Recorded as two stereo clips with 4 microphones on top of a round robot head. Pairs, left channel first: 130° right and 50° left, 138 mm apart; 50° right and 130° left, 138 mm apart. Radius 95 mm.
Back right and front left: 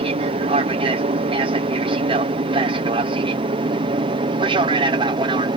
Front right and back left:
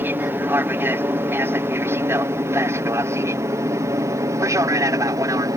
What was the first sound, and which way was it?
An aircraft, 60° left.